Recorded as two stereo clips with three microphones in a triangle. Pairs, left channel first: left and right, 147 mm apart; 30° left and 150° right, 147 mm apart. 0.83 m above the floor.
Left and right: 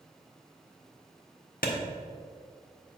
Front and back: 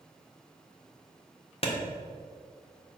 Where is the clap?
75° left, 1.4 m.